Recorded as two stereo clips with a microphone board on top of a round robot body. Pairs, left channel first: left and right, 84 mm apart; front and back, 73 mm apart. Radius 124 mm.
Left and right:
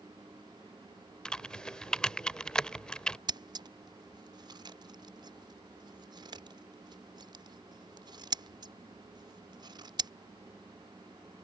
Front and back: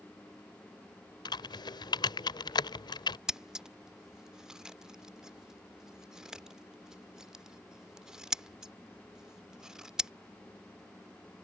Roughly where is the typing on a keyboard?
Ahead.